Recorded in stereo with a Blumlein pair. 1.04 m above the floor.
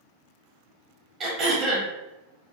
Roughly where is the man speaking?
I don't hear a man speaking.